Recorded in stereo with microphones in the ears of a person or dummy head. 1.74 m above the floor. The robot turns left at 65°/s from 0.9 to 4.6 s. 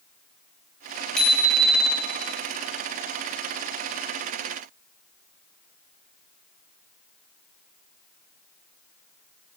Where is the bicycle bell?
5° left, 5.5 m; by 2.1 s 60° right, 5.5 m.